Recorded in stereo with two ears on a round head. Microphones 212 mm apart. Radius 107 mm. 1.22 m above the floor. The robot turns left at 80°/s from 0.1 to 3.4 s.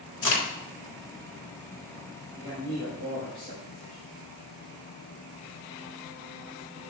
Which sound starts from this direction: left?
A crack, at 0.2 s.